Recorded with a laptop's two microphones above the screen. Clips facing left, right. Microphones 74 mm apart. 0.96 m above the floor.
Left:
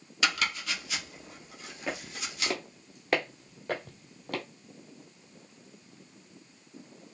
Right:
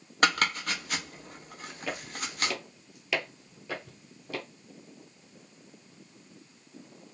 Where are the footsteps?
20° left (ahead or behind), 1.4 m; by 4.4 s 55° left (ahead or behind), 1.6 m.